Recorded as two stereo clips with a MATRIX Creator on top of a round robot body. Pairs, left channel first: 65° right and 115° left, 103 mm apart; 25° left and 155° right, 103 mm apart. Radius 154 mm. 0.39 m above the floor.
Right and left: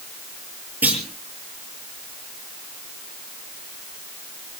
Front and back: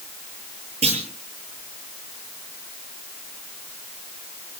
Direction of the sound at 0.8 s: 175° right.